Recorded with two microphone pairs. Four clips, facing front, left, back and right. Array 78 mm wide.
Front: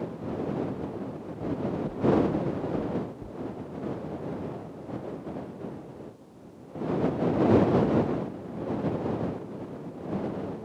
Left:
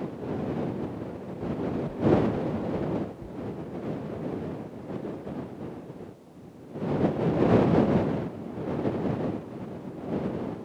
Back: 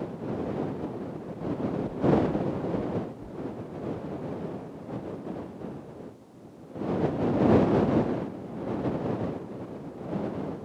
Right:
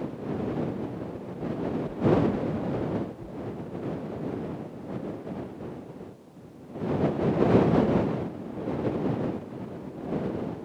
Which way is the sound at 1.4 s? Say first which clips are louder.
Even, even; 15° left.